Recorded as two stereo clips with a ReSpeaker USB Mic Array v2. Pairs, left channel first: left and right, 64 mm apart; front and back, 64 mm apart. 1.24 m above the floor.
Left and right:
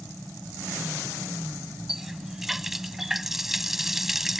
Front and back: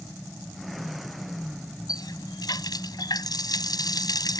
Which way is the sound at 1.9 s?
5° right.